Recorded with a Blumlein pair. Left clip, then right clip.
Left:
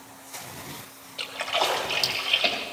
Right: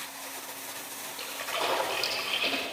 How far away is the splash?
About 2.5 m.